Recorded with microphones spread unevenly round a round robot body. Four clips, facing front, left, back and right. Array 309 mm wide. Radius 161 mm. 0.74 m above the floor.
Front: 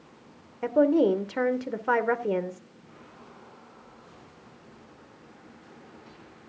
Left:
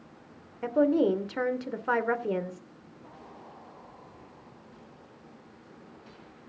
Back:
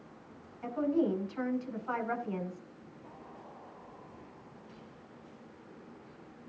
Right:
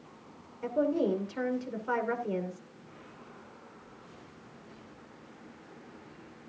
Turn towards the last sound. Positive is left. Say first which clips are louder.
# left 5 dB, front 9 dB
turn(degrees=15)